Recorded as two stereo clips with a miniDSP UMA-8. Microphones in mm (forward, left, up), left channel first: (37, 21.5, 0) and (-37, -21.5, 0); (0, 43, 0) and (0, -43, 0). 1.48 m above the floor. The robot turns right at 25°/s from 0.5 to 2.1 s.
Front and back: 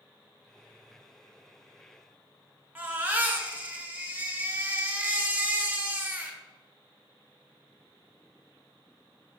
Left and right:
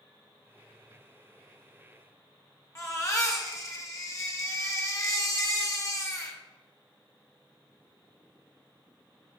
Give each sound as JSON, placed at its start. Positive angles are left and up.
{"t": 2.8, "sound": "a baby crying", "azimuth_deg": 140, "distance_m": 1.4}